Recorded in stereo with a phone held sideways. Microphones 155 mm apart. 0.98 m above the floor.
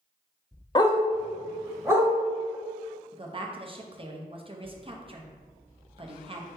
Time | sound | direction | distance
0.8 | a dog barking | 30° left (ahead or behind) | 0.5 m
3.1 | a woman speaking | 35° right (ahead or behind) | 0.6 m